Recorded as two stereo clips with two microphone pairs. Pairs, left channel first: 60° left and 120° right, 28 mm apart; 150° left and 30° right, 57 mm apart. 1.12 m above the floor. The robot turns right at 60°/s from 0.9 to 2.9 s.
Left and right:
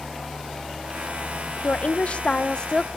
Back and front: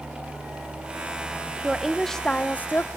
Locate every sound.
1.6 s a woman speaking: 45° left, 0.8 m; by 2.9 s 115° left, 0.8 m